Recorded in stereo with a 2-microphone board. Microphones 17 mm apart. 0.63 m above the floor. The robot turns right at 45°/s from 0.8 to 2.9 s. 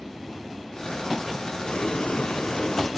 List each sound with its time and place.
1.6 s boiling: 70° left, 1.3 m; by 2.9 s 130° left, 1.3 m